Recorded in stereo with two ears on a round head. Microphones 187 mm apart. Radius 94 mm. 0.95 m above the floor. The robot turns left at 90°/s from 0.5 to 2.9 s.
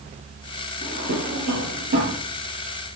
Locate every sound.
0.8 s a drawer: 20° right (ahead or behind), 6 m; by 2.2 s 35° right (ahead or behind), 6 m